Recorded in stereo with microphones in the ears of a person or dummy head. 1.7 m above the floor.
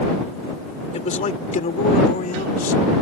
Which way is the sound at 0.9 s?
40° left (ahead or behind).